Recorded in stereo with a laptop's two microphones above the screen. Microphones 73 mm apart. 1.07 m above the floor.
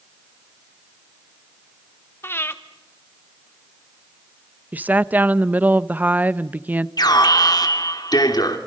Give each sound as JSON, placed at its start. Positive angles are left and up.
{"t": 2.2, "sound": "breathing", "side_deg": 30, "distance_m": 1.4}
{"t": 4.7, "sound": "a woman speaking", "side_deg": -25, "distance_m": 0.6}
{"t": 7.0, "sound": "an alarm", "side_deg": 65, "distance_m": 3.0}